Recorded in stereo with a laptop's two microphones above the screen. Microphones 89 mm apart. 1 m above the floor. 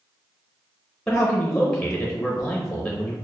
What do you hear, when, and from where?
1.1 s a man speaking: centre (ahead or behind), 0.8 m